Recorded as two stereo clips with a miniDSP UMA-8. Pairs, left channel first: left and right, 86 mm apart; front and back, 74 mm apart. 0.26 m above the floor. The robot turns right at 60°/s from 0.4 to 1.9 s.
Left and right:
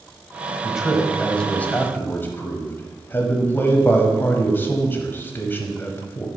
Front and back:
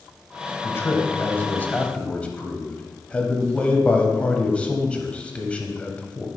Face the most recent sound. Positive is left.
turn(degrees=55)